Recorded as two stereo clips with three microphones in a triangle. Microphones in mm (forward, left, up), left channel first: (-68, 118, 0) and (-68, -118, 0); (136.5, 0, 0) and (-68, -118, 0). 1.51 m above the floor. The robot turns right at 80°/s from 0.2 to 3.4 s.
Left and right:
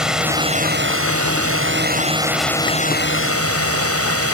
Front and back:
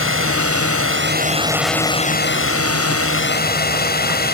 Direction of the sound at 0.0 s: Straight behind.